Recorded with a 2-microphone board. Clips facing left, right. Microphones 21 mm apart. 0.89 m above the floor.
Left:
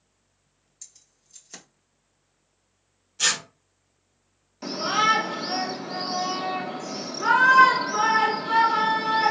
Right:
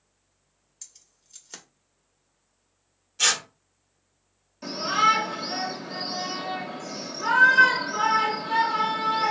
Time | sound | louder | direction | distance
0.8 | keys jangling | right 1 dB | 15° right (ahead or behind) | 1.2 m
3.2 | tearing paper | right 1 dB | 10° right (ahead or behind) | 1.0 m
4.6 | a shout | even | 25° left (ahead or behind) | 1.1 m